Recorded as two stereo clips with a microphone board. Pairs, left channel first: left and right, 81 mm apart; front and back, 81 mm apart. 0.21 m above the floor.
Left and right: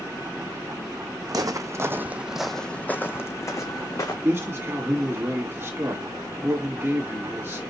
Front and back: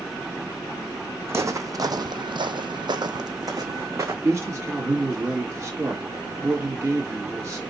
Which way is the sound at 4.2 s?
140° right.